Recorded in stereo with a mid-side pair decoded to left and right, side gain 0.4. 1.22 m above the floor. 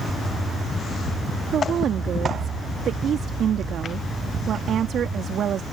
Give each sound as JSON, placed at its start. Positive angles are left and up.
{"t": 1.5, "sound": "a woman speaking", "azimuth_deg": -65}